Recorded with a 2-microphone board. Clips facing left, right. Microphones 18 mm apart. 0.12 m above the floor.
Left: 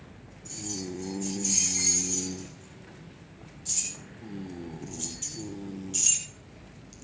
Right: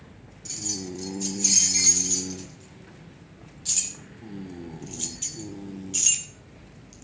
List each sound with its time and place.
0.5 s keys jangling: 55° right (ahead or behind), 4.5 m; by 7.0 s 5° right (ahead or behind), 2.5 m